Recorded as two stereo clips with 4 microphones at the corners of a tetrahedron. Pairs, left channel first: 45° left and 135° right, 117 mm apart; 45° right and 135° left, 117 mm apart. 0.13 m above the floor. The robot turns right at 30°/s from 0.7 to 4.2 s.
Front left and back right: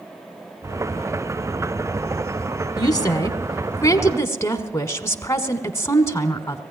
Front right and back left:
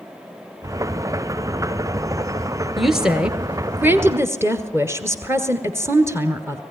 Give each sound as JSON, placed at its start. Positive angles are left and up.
{"t": 2.8, "sound": "a woman speaking", "azimuth_deg": 45, "distance_m": 1.4}